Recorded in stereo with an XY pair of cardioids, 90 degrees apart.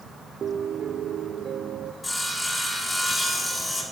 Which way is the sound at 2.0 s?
30° left.